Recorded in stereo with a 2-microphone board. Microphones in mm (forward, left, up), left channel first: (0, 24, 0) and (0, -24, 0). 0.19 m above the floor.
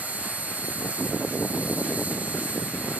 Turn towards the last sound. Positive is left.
turn(degrees=-30)  # may be behind; listen again after turning